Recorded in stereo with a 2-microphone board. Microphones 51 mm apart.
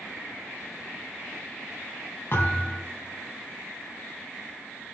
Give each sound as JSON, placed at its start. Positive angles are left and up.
{"t": 2.3, "sound": "a thud", "side_deg": 50, "distance_m": 5.0}